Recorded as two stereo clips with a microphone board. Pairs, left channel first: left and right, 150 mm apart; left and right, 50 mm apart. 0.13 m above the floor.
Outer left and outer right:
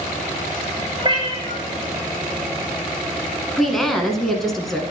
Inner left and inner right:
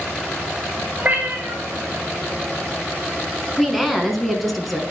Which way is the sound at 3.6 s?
Centre (ahead or behind).